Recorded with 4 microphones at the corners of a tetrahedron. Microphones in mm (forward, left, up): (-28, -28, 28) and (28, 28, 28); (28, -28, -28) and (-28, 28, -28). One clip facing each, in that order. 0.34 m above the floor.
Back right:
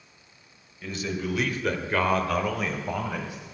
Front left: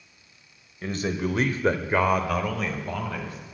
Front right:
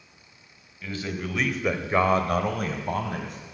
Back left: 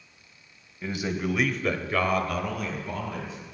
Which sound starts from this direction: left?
A man speaking, at 0.8 s.